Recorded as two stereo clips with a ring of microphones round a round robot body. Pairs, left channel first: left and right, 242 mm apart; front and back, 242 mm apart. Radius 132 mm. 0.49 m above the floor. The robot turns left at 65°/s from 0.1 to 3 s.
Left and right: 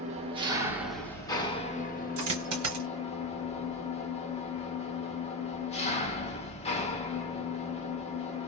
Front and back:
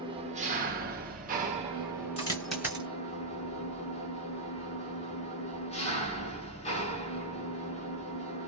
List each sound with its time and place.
0.0 s an engine running: 125° right, 1.0 m; by 8.5 s 45° left, 1.0 m
2.2 s a dropped coin: 65° right, 1.7 m; by 2.9 s 115° right, 1.7 m